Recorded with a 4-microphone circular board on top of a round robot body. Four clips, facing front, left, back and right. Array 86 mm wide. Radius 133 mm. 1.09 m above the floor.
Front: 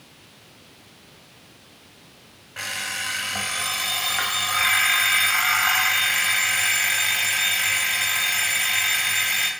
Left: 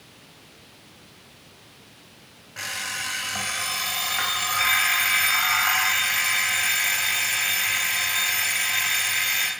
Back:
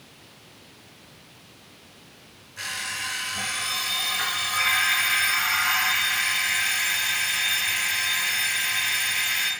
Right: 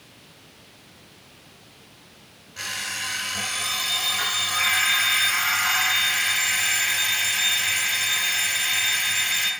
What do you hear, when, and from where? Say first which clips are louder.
2.6 s an alarm clock: even, front 2 dB; 30° left, 2.5 m